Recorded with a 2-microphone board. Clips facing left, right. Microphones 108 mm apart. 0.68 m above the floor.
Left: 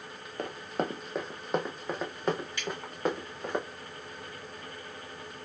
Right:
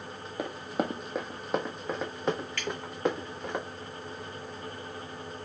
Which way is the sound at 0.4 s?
10° right (ahead or behind).